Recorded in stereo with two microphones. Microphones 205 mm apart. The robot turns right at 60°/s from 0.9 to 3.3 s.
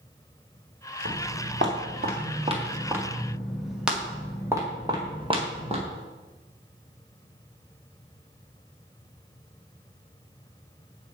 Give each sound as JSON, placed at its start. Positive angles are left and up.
{"t": 1.1, "sound": "footsteps", "side_deg": -85, "distance_m": 3.0}